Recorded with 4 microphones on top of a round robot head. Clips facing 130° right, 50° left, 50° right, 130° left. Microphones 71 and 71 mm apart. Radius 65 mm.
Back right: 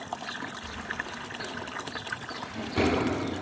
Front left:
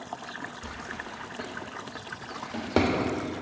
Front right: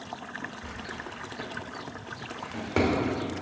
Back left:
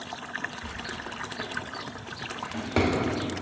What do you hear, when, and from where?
0.6 s a drawer: 35° left, 1.3 m